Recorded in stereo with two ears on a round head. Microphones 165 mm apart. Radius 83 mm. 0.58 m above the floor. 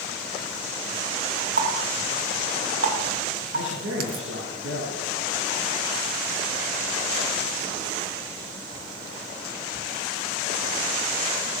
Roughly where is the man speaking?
Right.